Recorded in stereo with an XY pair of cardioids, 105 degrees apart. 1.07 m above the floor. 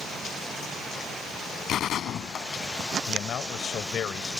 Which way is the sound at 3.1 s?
60° left.